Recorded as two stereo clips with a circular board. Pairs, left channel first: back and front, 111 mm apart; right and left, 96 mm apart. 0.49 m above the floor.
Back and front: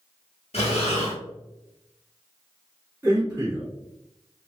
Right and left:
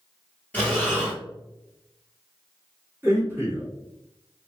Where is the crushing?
I don't hear crushing.